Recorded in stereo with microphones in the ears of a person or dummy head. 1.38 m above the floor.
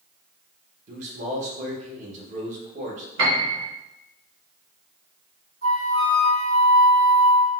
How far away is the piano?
About 1.1 m.